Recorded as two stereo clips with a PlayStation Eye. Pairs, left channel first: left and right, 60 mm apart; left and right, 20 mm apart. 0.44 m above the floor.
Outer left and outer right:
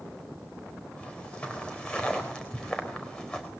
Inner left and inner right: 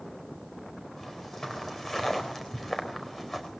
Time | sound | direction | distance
1.0 | footsteps | 25° left (ahead or behind) | 4.5 m